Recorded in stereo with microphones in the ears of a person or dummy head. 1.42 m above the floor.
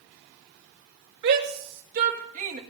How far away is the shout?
About 2.5 m.